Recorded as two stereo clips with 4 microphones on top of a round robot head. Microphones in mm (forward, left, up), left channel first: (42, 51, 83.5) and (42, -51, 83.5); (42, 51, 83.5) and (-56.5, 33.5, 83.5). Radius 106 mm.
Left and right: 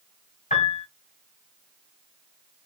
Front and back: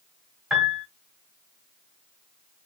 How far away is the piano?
About 2 m.